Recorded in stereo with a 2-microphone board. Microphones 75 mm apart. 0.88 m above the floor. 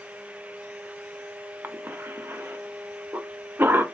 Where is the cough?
30° right (ahead or behind), 0.6 m.